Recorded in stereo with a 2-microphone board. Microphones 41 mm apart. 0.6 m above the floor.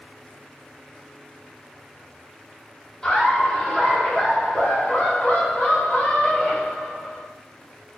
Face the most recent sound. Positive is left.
turn(degrees=40)  # may be behind; listen again after turning